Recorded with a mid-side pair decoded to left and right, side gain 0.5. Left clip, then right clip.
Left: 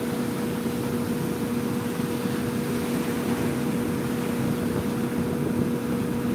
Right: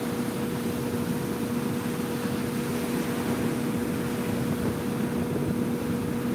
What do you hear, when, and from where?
0.0 s a fan: 10° left